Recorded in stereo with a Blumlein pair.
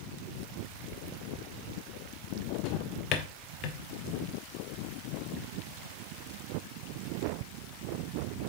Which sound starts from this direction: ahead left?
A drawer, at 2.6 s.